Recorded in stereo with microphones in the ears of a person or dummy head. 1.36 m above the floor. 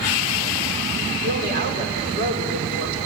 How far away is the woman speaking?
About 4.5 m.